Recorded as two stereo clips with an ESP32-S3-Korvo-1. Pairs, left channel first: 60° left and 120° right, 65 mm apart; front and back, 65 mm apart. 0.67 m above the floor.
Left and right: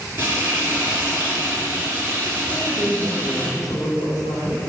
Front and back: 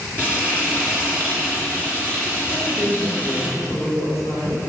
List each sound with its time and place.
0.2 s frying: 60° right, 3.5 m
2.5 s a woman speaking: 60° left, 2.5 m